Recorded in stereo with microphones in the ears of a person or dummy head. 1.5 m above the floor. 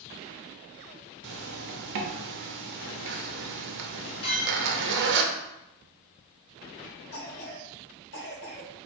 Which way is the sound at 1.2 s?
65° right (ahead or behind).